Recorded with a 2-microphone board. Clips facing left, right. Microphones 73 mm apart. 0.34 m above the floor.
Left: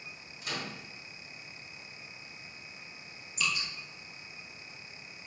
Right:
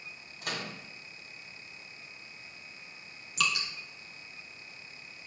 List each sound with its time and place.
0.4 s a microwave: 55° right (ahead or behind), 2.0 m
3.4 s dripping: 80° right, 1.3 m